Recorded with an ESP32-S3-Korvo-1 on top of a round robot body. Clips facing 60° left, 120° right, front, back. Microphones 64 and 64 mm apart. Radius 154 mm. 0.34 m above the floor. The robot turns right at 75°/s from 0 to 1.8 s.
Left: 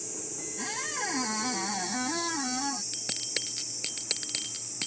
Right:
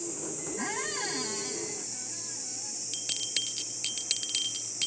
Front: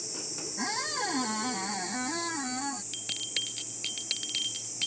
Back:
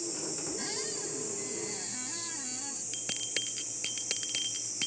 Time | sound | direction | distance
0.6 | a squeak | 50° right | ?
2.9 | a bell | 110° left | ?